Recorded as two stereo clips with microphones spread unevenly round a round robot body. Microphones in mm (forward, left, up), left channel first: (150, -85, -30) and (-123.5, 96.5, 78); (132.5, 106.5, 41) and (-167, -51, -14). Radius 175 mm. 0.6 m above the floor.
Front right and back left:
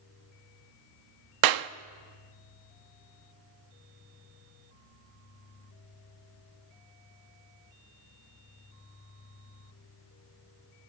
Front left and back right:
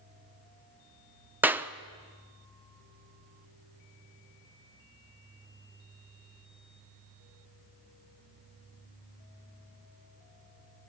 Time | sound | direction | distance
1.4 | a clap | 135° left | 0.7 m